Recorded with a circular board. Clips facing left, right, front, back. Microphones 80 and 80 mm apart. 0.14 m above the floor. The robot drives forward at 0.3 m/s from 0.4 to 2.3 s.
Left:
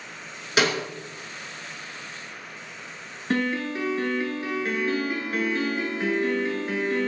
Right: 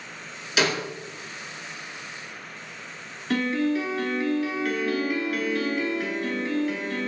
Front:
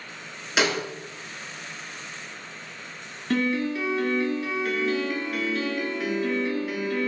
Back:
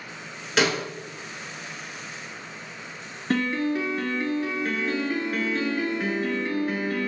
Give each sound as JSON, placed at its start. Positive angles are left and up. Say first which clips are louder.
{"t": 0.6, "sound": "a snare drum", "louder": "left 1 dB, back 1 dB", "azimuth_deg": 75, "distance_m": 1.7}
{"t": 3.3, "sound": "a piano", "louder": "right 2 dB, even", "azimuth_deg": 140, "distance_m": 0.8}